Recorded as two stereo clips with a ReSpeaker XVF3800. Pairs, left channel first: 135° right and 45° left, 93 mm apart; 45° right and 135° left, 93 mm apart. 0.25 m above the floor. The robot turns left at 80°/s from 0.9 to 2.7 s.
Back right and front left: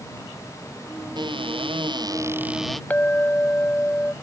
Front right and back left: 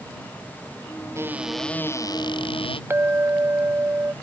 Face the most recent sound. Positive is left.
turn(degrees=170)